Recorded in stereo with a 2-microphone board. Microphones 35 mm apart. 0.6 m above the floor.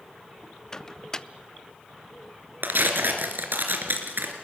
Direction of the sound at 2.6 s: 70° right (ahead or behind).